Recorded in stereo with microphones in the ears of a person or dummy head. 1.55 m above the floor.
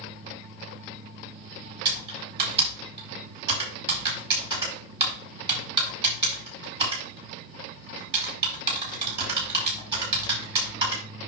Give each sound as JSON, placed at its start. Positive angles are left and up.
{"t": 1.9, "sound": "typing on a keyboard", "side_deg": -25, "distance_m": 5.0}